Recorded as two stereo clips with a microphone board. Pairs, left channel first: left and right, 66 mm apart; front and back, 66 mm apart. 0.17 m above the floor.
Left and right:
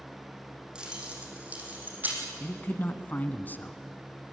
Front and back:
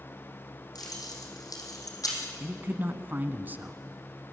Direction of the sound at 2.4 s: 135° left.